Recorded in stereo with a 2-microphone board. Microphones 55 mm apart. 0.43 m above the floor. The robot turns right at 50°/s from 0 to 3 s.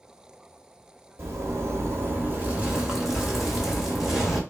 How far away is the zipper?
About 1.3 m.